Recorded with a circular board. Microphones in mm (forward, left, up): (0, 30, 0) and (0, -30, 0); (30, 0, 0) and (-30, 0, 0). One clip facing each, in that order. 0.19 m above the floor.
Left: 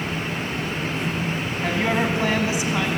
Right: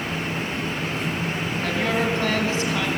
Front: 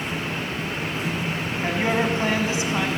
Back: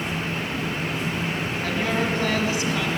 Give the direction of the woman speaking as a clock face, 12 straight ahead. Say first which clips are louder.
Left 2 dB, front 3 dB; 11 o'clock.